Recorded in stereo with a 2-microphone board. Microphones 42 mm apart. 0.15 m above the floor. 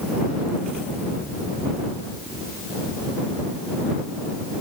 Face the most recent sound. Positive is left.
No sound to turn to.